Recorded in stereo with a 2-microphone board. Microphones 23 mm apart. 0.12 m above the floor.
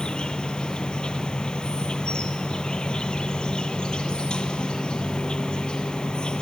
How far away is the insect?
About 1.0 m.